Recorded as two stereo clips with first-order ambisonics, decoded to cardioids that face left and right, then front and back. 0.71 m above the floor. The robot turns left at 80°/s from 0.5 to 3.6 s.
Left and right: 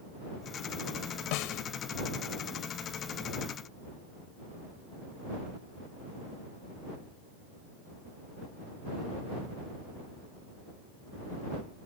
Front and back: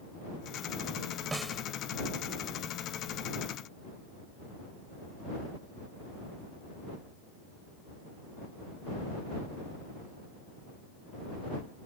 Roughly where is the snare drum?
Left.